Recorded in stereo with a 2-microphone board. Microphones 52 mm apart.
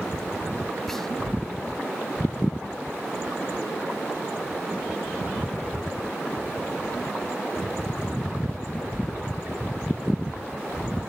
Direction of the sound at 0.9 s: 5° left (ahead or behind).